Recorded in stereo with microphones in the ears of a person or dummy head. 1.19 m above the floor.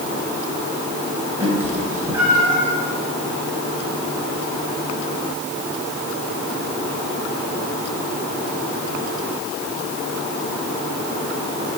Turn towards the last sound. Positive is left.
turn(degrees=-15)  # may be behind; listen again after turning